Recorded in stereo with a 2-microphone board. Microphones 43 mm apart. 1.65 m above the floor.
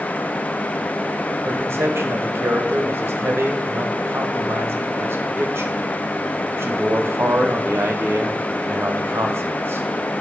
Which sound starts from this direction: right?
A man speaking, at 1.4 s.